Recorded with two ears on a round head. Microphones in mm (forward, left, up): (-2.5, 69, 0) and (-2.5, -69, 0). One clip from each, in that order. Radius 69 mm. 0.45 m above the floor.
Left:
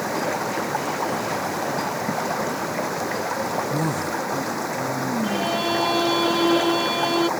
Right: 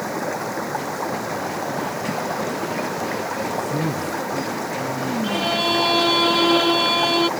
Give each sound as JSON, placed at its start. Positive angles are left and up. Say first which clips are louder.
{"t": 0.0, "sound": "running water", "louder": "left 1 dB", "side_deg": 10}
{"t": 3.7, "sound": "a man speaking", "louder": "even", "side_deg": 25}
{"t": 5.2, "sound": "a violin", "louder": "right 4 dB", "side_deg": -35}